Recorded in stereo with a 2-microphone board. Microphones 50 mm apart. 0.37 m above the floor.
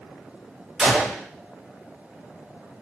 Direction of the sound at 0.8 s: 10° right (ahead or behind).